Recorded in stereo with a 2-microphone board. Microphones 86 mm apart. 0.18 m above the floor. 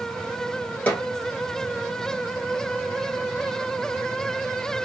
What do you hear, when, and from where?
0.9 s a snare drum: 20° left (ahead or behind), 1.3 m